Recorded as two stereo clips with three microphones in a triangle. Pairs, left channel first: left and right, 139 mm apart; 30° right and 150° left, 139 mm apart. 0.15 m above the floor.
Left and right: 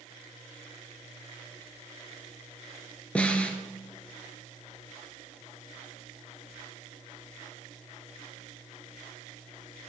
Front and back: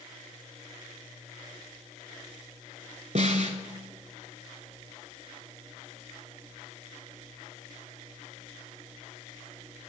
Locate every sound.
3.1 s a snare drum: 170° left, 0.8 m